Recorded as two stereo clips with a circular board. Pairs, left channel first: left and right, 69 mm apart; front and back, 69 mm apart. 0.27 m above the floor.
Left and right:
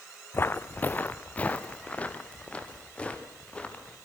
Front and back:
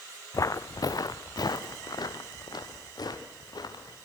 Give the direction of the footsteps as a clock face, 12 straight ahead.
11 o'clock.